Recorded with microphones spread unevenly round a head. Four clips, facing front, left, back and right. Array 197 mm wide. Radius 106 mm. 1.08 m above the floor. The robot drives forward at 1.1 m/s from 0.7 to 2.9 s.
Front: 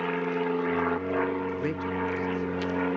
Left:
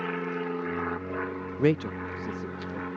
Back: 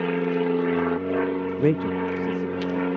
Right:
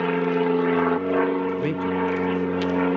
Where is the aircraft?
130° right; by 3.0 s 110° right.